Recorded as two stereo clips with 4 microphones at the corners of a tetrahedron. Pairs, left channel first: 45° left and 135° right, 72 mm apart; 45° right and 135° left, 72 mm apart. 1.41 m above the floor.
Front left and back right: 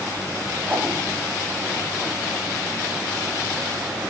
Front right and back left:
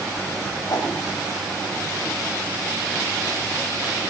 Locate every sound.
0.7 s a whoosh: 70° right, 2.5 m